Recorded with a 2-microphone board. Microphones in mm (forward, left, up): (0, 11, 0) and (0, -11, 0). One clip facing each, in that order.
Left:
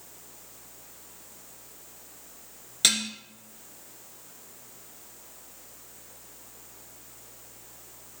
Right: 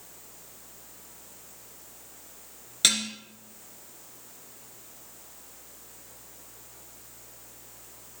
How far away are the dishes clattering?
About 1.4 m.